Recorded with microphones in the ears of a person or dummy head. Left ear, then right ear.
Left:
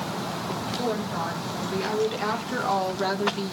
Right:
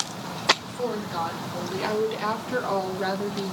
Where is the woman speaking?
25° right (ahead or behind), 5 m; by 3.5 s 20° left (ahead or behind), 3 m.